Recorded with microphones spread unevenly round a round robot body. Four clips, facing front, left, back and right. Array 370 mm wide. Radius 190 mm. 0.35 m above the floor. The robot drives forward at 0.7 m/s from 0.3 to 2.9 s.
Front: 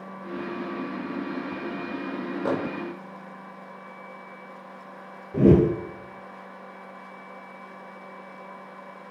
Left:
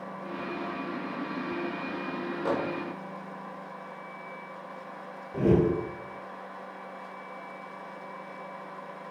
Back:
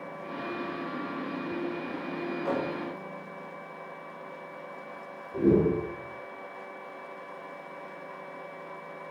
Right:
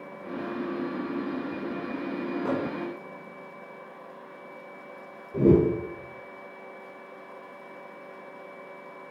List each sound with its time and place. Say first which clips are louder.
2.5 s a microwave: left 1 dB, front 4 dB; 10° right, 1.5 m
5.3 s a whoosh: right 3 dB, front 5 dB; 10° right, 0.5 m